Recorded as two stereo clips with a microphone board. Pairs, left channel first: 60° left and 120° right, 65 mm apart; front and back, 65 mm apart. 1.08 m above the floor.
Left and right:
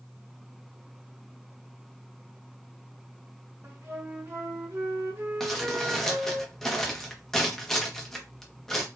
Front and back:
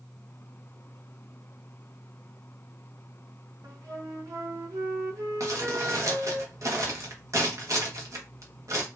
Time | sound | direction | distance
3.6 | a flute | 170° right | 1.0 m
5.4 | crumpling | 145° left | 0.8 m